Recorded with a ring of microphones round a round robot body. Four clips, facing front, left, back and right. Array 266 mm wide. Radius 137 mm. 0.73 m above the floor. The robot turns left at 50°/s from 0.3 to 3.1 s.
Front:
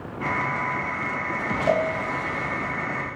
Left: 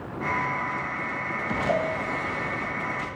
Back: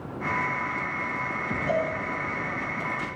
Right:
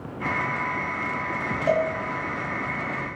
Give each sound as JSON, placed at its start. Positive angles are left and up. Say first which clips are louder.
{"t": 1.7, "sound": "a cowbell", "louder": "right 4 dB, front 4 dB", "azimuth_deg": -40, "distance_m": 1.6}